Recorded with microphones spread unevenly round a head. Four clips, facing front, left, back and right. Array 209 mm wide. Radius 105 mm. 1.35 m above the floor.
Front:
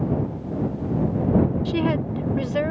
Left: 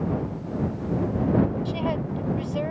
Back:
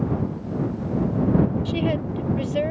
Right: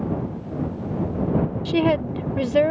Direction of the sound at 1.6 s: 85° right.